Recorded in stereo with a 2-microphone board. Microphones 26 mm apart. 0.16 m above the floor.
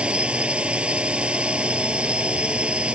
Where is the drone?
50° right (ahead or behind).